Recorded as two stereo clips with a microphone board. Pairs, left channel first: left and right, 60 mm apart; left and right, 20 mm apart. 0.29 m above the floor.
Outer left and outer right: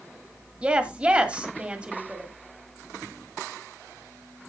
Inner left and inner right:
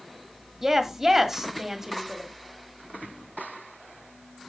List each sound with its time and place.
0.6 s a woman speaking: 20° right (ahead or behind), 1.6 m